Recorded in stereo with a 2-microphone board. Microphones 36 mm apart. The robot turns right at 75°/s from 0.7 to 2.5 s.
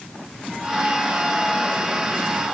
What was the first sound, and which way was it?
Only background noise.